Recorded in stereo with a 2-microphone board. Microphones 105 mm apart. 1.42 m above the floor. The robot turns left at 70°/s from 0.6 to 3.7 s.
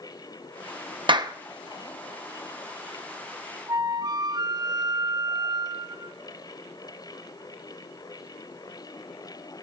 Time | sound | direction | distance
1.1 | a clap | 50° right (ahead or behind) | 0.8 m
3.7 | a flute | 40° right (ahead or behind) | 0.9 m